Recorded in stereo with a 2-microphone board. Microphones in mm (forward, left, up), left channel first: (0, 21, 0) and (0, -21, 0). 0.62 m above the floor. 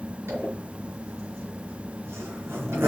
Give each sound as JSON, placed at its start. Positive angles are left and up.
{"t": 0.3, "sound": "a zipper", "side_deg": -90, "distance_m": 4.5}